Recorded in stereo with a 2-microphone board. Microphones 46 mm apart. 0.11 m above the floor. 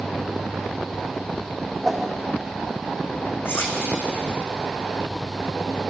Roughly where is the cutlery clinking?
Left.